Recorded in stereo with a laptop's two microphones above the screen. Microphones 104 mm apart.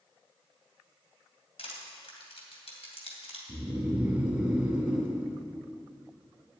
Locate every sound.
1.6 s crushing: 75° left (ahead or behind), 2.5 m
3.5 s snoring: 10° right (ahead or behind), 1.6 m